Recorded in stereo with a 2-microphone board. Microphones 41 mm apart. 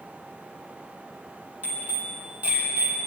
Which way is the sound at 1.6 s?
35° right (ahead or behind).